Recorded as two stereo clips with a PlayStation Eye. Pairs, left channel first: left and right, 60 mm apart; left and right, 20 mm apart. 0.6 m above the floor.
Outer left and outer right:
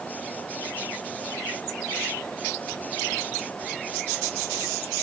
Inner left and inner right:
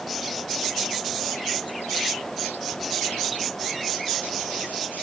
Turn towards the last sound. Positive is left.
No sound to turn to.